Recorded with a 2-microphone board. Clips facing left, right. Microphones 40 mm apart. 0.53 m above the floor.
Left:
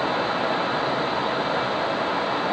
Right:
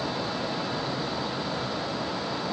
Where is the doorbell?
No doorbell in this recording.